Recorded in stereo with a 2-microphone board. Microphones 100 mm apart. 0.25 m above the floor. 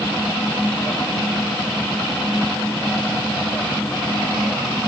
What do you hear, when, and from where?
Only background noise.